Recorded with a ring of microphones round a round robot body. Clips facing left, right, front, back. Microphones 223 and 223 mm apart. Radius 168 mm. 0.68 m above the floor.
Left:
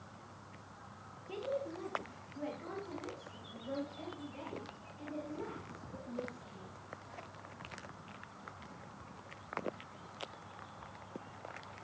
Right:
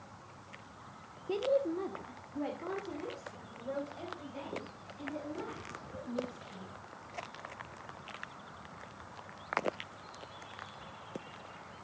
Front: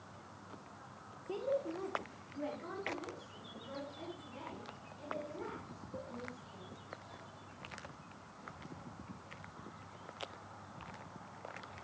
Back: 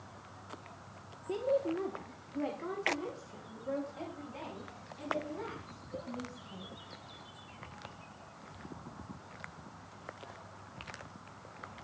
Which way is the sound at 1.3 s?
110° right.